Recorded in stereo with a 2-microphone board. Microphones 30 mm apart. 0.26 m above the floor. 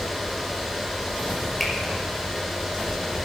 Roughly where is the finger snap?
Centre.